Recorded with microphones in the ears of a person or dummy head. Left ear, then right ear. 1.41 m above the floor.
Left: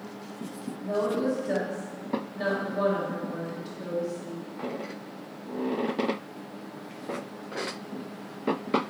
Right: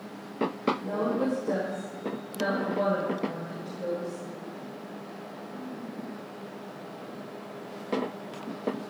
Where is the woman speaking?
10° right (ahead or behind), 1.6 m.